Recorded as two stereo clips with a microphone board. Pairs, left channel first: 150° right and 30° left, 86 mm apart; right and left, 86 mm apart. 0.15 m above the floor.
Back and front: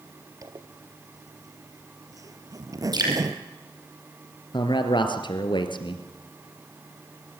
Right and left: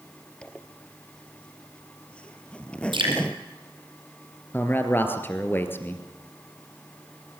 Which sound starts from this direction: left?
Dripping, at 2.9 s.